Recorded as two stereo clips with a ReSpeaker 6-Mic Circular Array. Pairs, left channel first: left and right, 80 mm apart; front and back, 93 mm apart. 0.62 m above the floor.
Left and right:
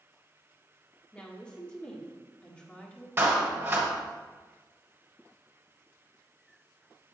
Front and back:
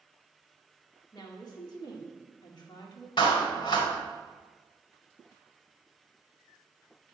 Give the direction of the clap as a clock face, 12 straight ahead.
1 o'clock.